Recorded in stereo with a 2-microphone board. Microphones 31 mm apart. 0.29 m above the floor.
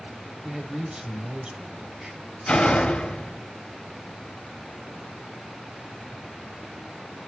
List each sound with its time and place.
0.4 s a man speaking: 25° right (ahead or behind), 1.0 m
2.5 s a door slam: 35° left (ahead or behind), 1.1 m